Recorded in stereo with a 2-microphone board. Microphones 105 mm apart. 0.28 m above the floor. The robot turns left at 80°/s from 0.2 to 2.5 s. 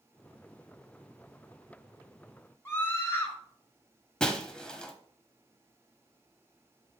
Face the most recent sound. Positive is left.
turn(degrees=5)  # may be behind; listen again after turning